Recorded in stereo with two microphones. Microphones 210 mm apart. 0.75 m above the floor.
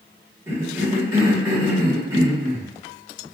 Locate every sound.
0.5 s a cough: 10° right (ahead or behind), 1.8 m